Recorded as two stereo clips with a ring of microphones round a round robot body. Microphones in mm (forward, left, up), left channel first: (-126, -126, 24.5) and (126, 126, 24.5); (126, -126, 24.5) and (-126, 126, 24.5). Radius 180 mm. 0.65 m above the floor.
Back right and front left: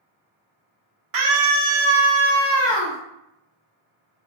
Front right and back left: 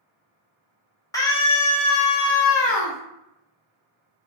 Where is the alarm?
No alarm in this recording.